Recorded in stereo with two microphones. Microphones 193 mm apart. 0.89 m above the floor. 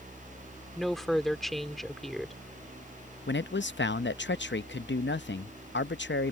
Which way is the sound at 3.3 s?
70° left (ahead or behind).